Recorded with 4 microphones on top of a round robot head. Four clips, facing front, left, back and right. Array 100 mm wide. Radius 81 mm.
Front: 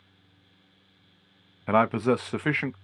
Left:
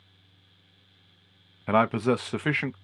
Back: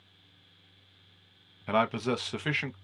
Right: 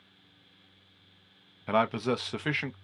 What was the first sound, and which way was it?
A man speaking, 30° left.